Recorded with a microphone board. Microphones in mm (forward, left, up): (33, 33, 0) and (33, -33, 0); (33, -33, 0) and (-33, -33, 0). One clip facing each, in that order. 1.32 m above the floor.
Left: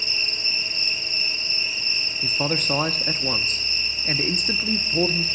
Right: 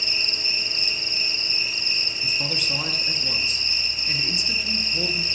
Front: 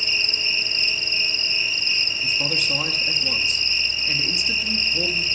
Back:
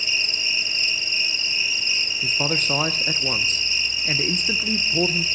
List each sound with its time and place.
0.0 s an insect: 100° right, 1.9 m
2.2 s a man speaking: 135° left, 0.7 m